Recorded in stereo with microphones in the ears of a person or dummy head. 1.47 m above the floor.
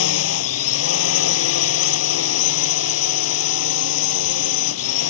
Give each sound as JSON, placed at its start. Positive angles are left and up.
{"t": 0.0, "sound": "a drone", "side_deg": 90}